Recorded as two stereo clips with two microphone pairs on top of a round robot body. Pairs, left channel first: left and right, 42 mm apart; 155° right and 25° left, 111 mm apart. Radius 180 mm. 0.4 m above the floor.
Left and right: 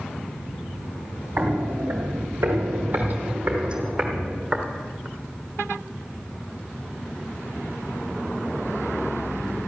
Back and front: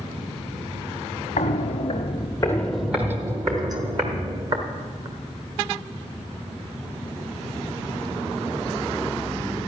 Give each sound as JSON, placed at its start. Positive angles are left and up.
{"t": 1.4, "sound": "footsteps", "azimuth_deg": -140, "distance_m": 0.9}